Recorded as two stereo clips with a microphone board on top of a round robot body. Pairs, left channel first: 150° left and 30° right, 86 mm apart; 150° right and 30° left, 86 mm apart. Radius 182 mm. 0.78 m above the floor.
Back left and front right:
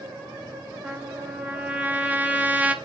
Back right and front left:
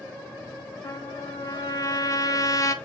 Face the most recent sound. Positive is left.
turn(degrees=-100)